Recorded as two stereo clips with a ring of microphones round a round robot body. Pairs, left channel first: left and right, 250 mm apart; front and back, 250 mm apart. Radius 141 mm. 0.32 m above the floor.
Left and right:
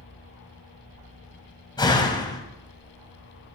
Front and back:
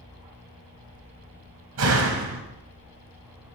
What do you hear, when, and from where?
1.8 s a door slam: 160° left, 1.7 m